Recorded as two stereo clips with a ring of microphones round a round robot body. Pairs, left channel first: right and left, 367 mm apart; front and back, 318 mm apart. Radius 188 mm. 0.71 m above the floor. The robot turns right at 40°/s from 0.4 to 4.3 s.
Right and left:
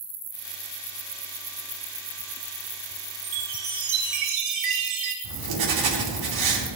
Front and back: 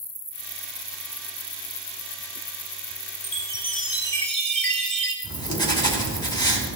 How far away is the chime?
About 3 m.